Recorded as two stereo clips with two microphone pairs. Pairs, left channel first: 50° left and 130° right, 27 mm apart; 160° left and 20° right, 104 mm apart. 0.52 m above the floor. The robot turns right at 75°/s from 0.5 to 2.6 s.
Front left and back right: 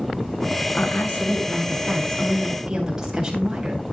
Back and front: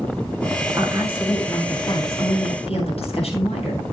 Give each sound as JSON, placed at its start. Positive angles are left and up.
{"t": 0.7, "sound": "a woman speaking", "azimuth_deg": 25, "distance_m": 8.0}